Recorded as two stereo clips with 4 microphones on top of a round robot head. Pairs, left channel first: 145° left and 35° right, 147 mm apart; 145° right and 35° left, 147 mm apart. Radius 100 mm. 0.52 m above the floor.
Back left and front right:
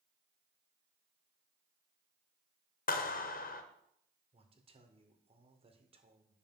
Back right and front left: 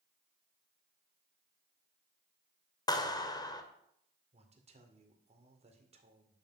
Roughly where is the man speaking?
Ahead.